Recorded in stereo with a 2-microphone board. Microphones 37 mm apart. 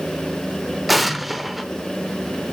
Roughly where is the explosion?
Centre.